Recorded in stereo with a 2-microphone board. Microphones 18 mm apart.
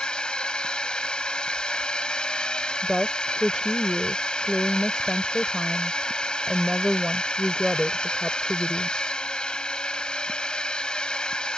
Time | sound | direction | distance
0.0 | a drone | 60° left (ahead or behind) | ?
2.8 | a woman speaking | 30° right (ahead or behind) | ?